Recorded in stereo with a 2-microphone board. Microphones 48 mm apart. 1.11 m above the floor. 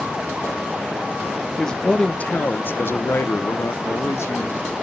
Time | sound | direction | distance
1.6 | a man speaking | 15° left (ahead or behind) | 1.0 m